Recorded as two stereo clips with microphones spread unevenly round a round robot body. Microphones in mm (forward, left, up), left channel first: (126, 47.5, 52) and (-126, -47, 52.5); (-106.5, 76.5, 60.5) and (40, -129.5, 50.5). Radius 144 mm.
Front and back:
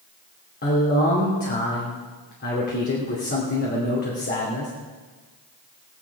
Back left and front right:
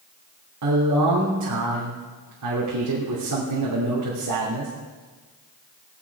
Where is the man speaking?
35° right, 2.5 m.